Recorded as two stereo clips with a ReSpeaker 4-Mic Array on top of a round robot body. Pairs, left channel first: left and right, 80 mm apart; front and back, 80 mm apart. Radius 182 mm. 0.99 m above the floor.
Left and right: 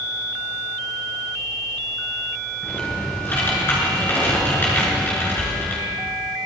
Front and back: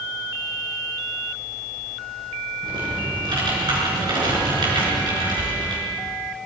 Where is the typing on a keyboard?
155° left, 6 m.